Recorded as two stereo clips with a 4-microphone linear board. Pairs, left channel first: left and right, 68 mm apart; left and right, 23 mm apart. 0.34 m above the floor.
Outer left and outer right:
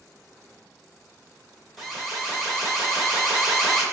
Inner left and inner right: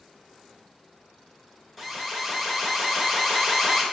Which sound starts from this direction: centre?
An alarm, at 1.8 s.